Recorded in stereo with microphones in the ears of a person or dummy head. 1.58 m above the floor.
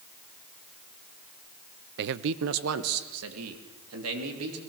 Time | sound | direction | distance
2.0 | a man speaking | 60° right (ahead or behind) | 0.6 m